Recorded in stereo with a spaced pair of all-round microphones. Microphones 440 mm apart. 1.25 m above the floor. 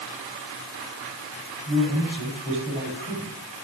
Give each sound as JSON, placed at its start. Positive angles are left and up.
{"t": 1.7, "sound": "a man speaking", "side_deg": -15, "distance_m": 9.5}